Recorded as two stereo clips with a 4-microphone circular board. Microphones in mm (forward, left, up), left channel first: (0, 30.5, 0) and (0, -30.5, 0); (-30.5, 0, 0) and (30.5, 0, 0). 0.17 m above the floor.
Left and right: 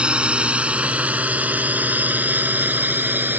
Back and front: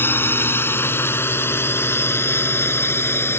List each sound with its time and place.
0.0 s a drone: 155° right; by 3.4 s 140° right